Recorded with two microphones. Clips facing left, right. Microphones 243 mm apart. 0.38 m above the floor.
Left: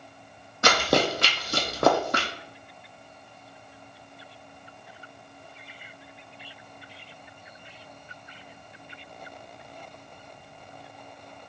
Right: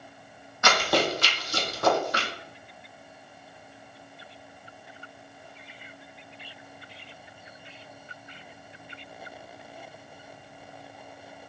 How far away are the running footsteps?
About 1.0 m.